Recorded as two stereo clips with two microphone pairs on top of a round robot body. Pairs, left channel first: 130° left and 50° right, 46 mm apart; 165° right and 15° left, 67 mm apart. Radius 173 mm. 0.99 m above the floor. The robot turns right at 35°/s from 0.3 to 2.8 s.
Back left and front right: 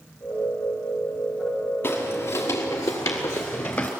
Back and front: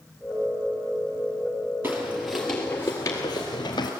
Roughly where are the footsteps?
Left.